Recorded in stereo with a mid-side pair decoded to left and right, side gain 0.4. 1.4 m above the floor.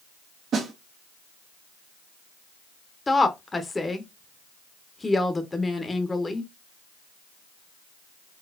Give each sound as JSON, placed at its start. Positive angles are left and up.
{"t": 0.5, "sound": "a snare drum", "azimuth_deg": -65, "distance_m": 1.3}
{"t": 3.1, "sound": "a woman speaking", "azimuth_deg": 25, "distance_m": 1.0}